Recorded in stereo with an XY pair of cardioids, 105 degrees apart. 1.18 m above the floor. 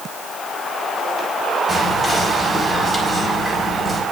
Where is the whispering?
5° left, 4.5 m.